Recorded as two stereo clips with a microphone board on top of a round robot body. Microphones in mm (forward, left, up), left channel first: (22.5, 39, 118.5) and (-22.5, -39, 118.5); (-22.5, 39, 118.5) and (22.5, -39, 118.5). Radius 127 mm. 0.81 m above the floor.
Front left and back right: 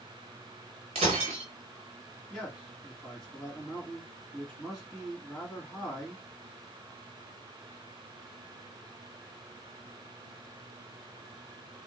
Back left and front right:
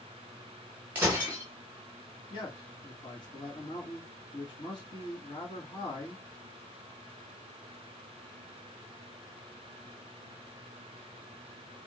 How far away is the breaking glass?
About 0.7 m.